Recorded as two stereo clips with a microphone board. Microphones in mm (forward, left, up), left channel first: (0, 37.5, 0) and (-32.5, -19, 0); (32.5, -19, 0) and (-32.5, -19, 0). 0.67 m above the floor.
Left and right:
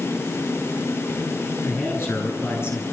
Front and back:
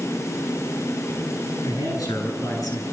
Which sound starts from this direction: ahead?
A man speaking, at 1.6 s.